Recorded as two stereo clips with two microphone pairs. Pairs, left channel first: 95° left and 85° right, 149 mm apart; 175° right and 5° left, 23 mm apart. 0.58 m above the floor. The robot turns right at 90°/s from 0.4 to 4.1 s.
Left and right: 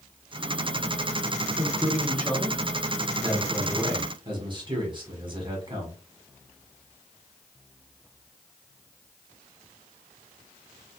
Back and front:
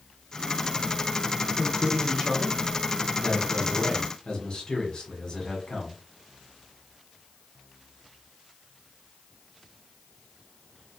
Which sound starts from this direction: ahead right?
A man speaking, at 1.6 s.